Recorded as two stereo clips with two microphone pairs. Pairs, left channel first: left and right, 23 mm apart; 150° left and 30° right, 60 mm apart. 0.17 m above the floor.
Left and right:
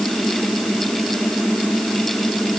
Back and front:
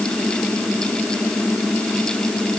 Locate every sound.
Only background noise.